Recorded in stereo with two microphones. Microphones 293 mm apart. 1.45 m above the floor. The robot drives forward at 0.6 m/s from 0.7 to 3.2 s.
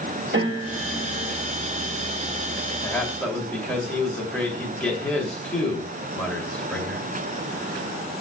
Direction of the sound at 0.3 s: 40° right (ahead or behind).